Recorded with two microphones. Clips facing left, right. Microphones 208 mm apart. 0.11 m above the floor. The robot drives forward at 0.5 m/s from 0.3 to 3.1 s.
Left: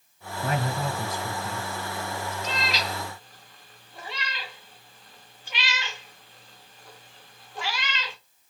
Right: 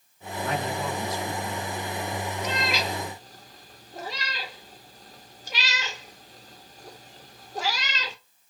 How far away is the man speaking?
About 2 m.